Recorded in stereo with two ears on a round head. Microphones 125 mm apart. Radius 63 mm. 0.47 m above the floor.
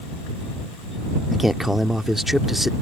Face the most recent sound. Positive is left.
turn(degrees=0)  # may be behind; listen again after turning